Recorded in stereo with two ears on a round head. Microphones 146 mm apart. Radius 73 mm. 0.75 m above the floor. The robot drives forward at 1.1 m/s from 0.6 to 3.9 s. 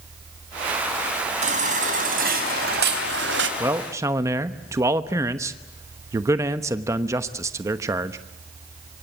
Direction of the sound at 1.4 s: 45° right (ahead or behind).